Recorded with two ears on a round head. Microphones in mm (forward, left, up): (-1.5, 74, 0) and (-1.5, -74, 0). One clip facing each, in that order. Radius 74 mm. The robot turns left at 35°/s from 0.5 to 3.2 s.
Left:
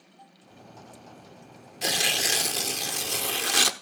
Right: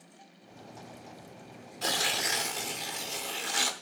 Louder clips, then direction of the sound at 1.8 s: Left 3 dB; 160° left.